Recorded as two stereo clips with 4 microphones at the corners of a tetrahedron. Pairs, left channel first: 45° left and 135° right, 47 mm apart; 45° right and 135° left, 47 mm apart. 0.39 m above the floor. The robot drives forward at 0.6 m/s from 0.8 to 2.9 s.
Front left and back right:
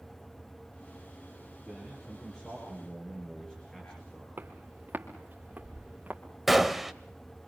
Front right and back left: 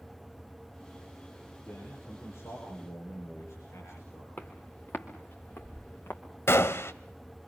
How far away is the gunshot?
About 0.8 m.